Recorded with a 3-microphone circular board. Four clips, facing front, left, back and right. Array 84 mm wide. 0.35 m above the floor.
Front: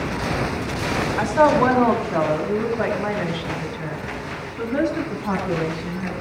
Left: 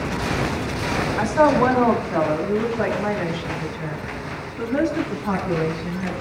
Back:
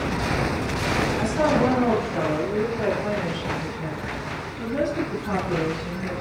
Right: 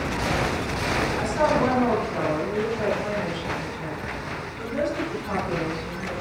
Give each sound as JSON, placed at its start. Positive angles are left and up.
{"t": 1.2, "sound": "a woman speaking", "azimuth_deg": 35, "distance_m": 3.5}